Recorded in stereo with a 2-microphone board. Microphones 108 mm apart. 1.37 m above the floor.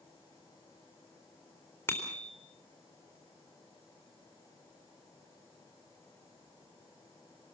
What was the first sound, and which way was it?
A bicycle bell, 20° left (ahead or behind).